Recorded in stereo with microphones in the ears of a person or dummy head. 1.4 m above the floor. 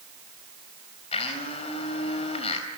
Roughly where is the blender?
Left.